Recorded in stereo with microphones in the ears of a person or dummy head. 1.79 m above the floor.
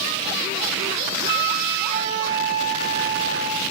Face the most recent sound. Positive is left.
turn(degrees=-40)  # may be behind; listen again after turning